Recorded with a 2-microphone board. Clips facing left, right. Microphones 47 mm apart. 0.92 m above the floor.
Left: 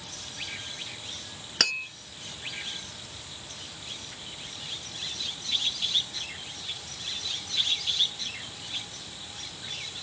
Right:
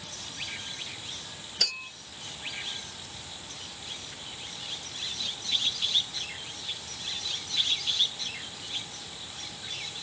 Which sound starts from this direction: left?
Tapping, at 1.6 s.